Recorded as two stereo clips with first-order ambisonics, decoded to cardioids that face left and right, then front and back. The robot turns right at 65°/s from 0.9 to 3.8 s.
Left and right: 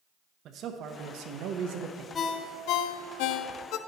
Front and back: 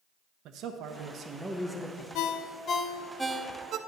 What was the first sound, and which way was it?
A man speaking, 140° right.